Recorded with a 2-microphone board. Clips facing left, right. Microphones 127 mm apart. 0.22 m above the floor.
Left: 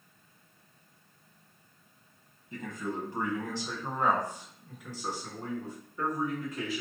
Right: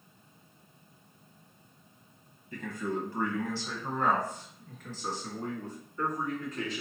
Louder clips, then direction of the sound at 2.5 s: Right 2 dB; 25° left (ahead or behind).